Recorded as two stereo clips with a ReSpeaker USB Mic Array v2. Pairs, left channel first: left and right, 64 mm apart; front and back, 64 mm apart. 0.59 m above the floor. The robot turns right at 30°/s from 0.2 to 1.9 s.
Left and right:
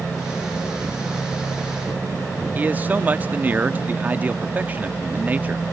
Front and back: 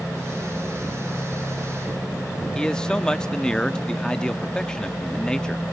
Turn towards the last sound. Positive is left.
turn(degrees=-65)